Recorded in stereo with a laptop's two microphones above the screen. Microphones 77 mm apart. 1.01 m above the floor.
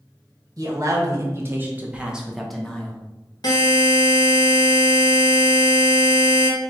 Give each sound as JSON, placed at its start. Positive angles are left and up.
{"t": 0.6, "sound": "a man speaking", "side_deg": -50, "distance_m": 1.3}
{"t": 3.4, "sound": "a buzzer", "side_deg": 60, "distance_m": 1.2}